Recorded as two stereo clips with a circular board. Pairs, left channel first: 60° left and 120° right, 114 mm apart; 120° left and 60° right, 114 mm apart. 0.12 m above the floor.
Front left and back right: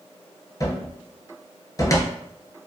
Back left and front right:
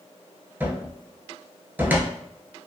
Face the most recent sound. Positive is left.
turn(degrees=10)